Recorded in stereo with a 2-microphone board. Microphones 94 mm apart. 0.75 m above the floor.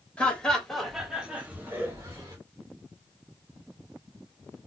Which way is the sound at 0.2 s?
15° left (ahead or behind).